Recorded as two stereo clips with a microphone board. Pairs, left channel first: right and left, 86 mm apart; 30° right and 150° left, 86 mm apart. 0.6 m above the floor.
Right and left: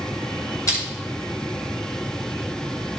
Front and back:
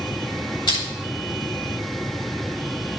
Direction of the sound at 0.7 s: 45° right.